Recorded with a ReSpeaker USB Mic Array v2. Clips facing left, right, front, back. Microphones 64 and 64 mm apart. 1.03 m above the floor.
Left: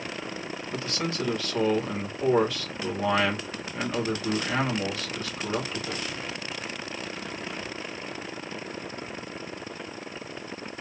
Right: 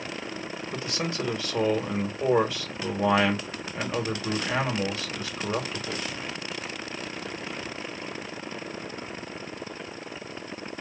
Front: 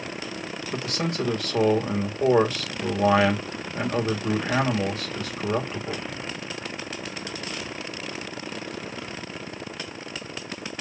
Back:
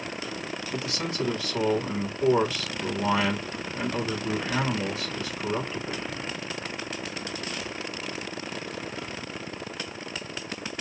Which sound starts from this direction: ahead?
A man speaking, at 0.7 s.